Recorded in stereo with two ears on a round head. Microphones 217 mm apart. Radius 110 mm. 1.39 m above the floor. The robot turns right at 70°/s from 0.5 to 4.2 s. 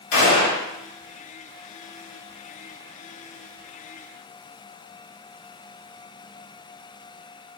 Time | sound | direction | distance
0.1 | a gunshot | 60° left (ahead or behind) | 1.4 m